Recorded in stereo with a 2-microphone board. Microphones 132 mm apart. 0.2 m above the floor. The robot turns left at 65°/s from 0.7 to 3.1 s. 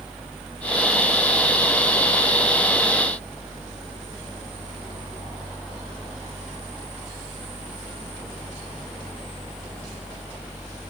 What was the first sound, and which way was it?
Only background noise.